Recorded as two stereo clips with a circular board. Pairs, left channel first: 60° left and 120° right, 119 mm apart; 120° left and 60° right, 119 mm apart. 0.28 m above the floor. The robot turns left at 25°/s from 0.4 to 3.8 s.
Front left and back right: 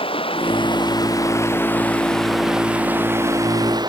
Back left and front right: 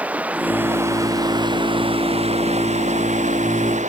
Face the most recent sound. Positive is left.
turn(degrees=-65)